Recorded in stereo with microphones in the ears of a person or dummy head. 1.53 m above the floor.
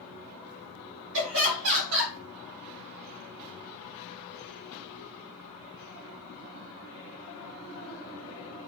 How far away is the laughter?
About 2 m.